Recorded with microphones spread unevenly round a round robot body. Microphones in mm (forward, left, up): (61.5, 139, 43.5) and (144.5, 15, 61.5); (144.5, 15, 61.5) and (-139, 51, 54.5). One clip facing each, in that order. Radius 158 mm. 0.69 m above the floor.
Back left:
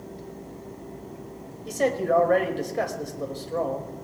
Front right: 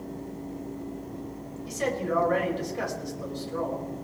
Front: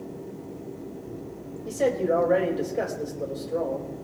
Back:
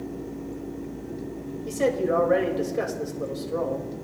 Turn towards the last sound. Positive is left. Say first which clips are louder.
# back left 6 dB, even
turn(degrees=95)